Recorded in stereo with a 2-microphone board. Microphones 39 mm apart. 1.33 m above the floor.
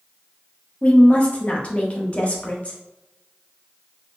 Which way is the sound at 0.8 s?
30° left (ahead or behind).